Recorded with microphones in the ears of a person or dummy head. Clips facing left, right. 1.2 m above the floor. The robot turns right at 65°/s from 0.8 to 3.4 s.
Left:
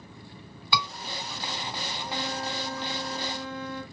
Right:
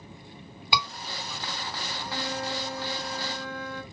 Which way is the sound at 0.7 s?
15° right (ahead or behind).